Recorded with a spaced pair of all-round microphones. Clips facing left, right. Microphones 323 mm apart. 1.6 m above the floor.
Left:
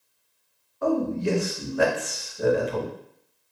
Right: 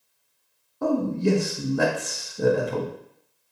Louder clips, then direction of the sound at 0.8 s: Right 1 dB; 50° right (ahead or behind).